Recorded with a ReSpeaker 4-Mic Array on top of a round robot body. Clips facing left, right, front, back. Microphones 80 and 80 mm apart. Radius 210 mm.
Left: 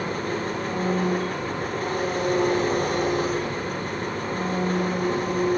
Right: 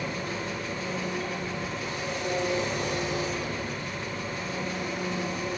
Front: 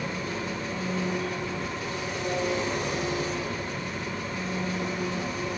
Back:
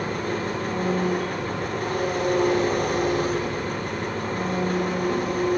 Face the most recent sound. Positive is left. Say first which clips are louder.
# left 6 dB, back 5 dB
turn(degrees=135)